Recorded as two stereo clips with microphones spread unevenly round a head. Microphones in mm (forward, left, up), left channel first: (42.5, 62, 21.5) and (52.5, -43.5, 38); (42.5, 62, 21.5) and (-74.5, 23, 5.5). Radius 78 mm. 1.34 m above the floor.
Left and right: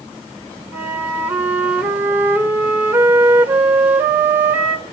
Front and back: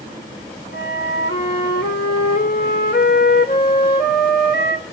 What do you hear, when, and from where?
0.7 s a flute: 10° right, 3.5 m